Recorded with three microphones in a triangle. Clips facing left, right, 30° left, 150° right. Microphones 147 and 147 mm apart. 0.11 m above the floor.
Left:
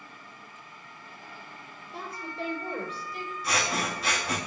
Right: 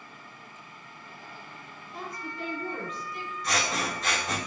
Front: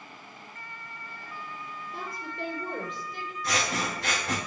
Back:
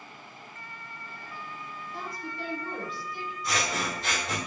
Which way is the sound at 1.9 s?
35° left.